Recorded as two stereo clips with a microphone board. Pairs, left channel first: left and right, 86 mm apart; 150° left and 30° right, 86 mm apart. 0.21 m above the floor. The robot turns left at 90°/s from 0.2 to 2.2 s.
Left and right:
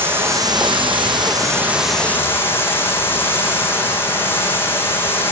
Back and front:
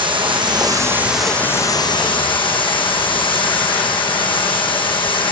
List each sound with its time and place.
0.0 s running water: 25° right, 3.5 m; by 5.3 s 155° left, 3.5 m